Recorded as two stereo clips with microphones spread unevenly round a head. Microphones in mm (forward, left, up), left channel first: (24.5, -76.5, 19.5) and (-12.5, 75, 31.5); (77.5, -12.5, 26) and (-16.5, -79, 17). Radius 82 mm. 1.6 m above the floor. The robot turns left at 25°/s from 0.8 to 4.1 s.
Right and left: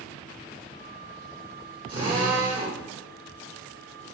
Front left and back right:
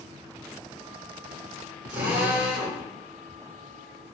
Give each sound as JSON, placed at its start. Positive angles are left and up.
{"t": 1.9, "sound": "a drill", "azimuth_deg": 170, "distance_m": 3.0}